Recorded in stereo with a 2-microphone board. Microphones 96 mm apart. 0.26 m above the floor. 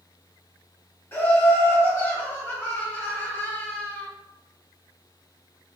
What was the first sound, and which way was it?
Laughter, 25° left (ahead or behind).